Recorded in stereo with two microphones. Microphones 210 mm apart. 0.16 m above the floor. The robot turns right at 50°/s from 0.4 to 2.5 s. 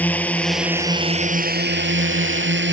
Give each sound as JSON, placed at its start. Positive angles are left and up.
{"t": 0.0, "sound": "a drone", "side_deg": 5}